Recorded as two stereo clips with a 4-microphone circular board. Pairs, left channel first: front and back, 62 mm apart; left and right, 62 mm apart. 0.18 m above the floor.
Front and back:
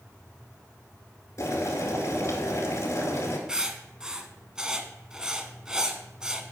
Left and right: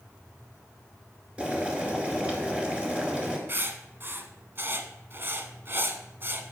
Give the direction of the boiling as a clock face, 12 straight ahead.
1 o'clock.